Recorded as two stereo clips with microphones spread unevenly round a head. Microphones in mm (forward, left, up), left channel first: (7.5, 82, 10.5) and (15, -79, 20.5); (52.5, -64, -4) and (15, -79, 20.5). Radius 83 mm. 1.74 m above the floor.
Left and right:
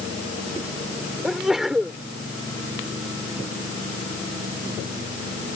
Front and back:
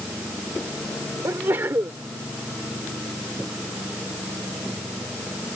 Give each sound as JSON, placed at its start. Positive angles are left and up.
{"t": 1.2, "sound": "a sneeze", "azimuth_deg": -175}